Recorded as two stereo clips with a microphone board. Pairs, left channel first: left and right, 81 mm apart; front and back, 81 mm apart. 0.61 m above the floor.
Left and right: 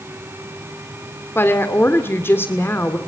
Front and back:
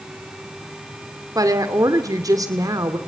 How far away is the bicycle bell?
No bicycle bell in this recording.